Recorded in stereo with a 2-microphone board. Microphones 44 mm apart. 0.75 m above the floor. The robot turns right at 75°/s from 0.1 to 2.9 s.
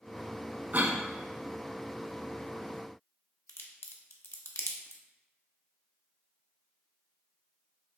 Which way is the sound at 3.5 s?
70° left (ahead or behind).